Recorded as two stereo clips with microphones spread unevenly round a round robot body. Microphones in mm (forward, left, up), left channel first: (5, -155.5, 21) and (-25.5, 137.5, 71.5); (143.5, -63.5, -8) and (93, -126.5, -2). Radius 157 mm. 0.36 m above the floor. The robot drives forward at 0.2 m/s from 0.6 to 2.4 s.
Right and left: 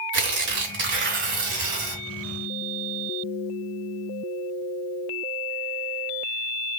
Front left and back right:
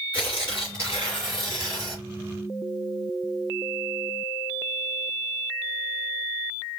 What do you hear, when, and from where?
0.1 s tearing paper: 150° left, 2.5 m; by 2.0 s 155° left, 2.5 m